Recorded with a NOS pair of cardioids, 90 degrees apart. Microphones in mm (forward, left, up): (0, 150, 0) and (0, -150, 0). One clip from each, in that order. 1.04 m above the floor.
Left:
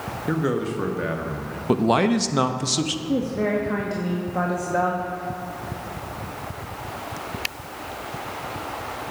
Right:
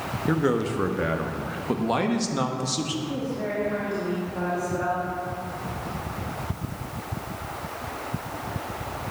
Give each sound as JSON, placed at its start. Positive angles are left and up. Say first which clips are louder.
{"t": 0.3, "sound": "a man speaking", "louder": "right 1 dB", "azimuth_deg": -5, "distance_m": 1.2}
{"t": 1.7, "sound": "a man speaking", "louder": "left 6 dB", "azimuth_deg": 30, "distance_m": 1.1}
{"t": 3.1, "sound": "a woman speaking", "louder": "left 5 dB", "azimuth_deg": 60, "distance_m": 2.0}